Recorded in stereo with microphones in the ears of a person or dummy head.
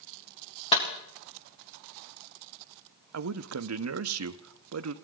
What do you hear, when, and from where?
0.7 s a clap: 30° left (ahead or behind), 1.8 m
3.1 s a man speaking: 80° right, 0.7 m